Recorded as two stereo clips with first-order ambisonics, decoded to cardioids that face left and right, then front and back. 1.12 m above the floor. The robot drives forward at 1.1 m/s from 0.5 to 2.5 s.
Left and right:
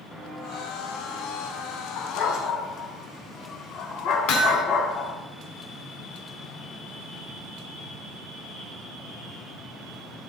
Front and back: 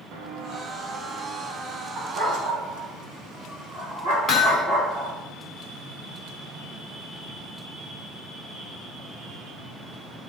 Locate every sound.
0.1 s footsteps: 175° left, 4.5 m; by 1.9 s 175° right, 6.5 m
2.0 s a dog barking: 120° left, 3.5 m; by 5.1 s 125° left, 4 m
4.3 s hammering: 90° left, 2 m